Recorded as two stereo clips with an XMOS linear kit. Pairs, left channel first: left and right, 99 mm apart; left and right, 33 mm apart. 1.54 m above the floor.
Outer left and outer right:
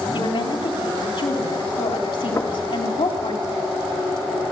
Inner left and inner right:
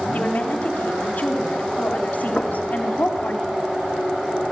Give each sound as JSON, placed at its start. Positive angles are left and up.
{"t": 0.1, "sound": "a woman speaking", "side_deg": 70, "distance_m": 3.5}
{"t": 2.4, "sound": "knocking", "side_deg": 35, "distance_m": 1.4}